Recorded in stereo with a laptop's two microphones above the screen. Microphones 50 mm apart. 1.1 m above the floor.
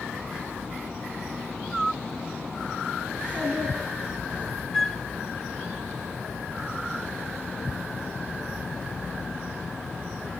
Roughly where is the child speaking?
Left.